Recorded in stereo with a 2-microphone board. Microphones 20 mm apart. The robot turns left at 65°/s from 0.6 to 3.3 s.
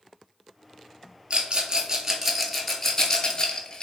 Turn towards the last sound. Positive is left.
turn(degrees=35)  # may be behind; listen again after turning